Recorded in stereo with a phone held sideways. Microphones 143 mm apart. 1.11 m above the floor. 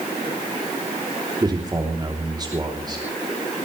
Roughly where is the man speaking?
Right.